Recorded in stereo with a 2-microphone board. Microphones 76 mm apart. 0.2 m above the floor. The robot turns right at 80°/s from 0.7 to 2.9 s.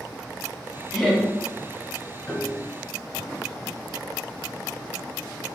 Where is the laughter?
Centre (ahead or behind), 1.4 m; by 1.2 s 10° left (ahead or behind), 1.4 m.